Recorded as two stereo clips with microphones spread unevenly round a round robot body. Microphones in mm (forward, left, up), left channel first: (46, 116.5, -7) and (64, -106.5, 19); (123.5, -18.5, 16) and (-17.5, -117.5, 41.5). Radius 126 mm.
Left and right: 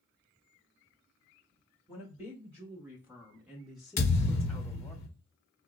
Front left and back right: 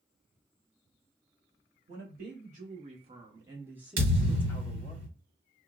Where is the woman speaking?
165° right, 1.3 m; by 5.0 s 25° left, 1.0 m.